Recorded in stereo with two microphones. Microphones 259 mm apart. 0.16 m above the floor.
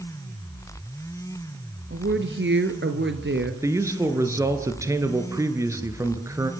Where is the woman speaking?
50° right (ahead or behind), 2.5 m.